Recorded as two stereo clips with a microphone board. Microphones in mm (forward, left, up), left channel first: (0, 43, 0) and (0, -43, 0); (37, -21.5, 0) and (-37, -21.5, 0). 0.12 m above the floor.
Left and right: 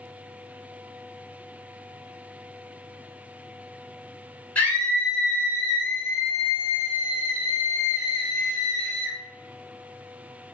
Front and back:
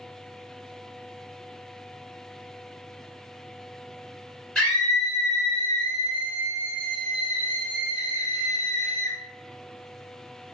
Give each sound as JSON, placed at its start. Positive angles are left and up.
{"t": 4.5, "sound": "a scream", "azimuth_deg": 55, "distance_m": 1.7}